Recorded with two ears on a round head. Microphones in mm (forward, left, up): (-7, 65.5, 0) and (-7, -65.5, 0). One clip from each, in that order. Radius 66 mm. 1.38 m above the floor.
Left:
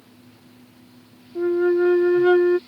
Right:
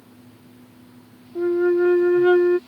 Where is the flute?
10° left (ahead or behind).